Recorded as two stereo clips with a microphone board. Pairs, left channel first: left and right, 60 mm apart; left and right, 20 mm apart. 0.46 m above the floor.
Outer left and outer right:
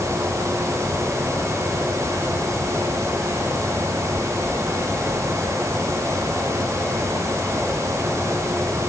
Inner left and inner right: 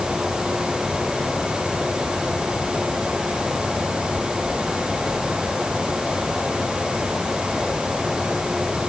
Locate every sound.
Only background noise.